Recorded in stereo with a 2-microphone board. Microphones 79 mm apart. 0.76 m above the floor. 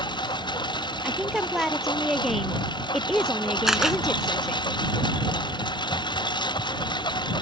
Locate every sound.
0.0 s a lawn mower: 85° left
1.0 s a woman speaking: centre (ahead or behind)
3.7 s a camera shutter: 5° right (ahead or behind)